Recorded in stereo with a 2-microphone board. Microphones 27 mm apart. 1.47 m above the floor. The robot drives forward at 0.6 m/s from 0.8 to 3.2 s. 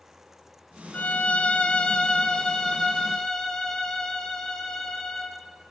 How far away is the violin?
About 0.6 m.